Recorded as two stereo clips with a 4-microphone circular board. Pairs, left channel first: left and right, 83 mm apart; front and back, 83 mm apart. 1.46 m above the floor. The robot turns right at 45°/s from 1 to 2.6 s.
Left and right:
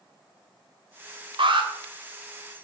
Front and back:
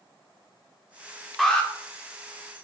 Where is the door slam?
No door slam in this recording.